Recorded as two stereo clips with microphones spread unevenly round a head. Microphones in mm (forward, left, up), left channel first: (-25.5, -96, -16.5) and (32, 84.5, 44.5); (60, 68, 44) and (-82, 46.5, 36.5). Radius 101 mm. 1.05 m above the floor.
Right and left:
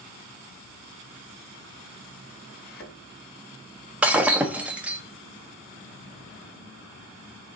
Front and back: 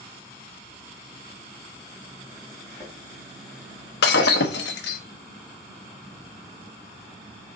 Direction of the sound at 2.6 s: 60° right.